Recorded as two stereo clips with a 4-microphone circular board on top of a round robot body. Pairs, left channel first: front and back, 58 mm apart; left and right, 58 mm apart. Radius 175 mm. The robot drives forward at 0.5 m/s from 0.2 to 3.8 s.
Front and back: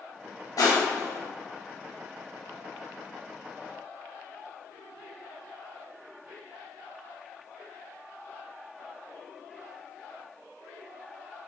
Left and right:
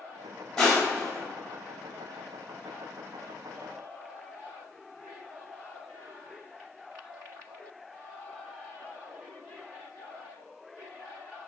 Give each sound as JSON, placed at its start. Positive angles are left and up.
{"t": 0.6, "sound": "crushing", "azimuth_deg": 5, "distance_m": 1.7}